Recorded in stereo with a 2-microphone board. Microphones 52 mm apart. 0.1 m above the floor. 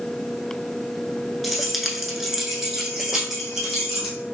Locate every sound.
1.4 s keys jangling: centre (ahead or behind), 1.0 m; by 4.2 s 10° right (ahead or behind), 2.5 m